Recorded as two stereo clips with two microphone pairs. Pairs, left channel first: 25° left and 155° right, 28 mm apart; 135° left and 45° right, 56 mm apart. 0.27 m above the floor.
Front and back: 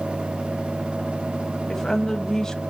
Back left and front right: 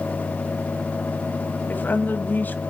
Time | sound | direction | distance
1.7 | a woman speaking | 95° left | 1.2 m